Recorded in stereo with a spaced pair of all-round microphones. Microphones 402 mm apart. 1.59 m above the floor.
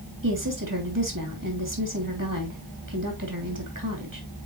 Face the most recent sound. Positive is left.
turn(degrees=-50)  # may be behind; listen again after turning